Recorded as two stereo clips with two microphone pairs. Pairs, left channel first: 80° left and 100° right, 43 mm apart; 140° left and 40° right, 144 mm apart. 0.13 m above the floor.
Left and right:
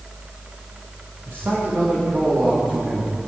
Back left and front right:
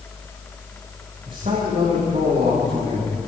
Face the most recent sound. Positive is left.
turn(degrees=-60)